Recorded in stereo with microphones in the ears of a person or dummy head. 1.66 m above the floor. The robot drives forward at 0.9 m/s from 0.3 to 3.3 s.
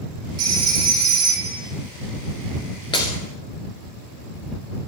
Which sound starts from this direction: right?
A phone ringing, at 0.4 s.